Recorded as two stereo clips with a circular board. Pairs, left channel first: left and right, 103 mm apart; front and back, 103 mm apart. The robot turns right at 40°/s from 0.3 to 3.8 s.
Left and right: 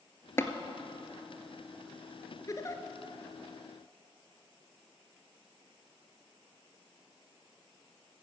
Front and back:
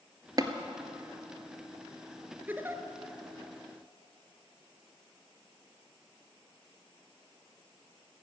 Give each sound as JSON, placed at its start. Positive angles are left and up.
{"t": 0.4, "sound": "tapping", "azimuth_deg": 145, "distance_m": 0.9}
{"t": 2.5, "sound": "a giggle", "azimuth_deg": 120, "distance_m": 1.1}